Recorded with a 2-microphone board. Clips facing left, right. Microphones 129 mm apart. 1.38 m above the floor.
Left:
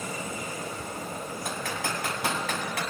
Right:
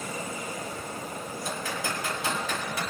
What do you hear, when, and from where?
1.4 s typing on a keyboard: 70° left (ahead or behind), 5 m